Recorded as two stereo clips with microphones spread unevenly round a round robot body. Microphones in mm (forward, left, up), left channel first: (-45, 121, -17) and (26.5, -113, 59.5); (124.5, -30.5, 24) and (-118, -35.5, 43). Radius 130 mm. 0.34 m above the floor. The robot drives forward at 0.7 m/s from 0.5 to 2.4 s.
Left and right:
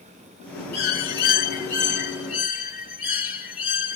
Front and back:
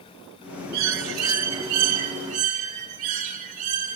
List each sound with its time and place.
0.7 s a bird: 150° left, 1.3 m; by 4.0 s 165° left, 2.5 m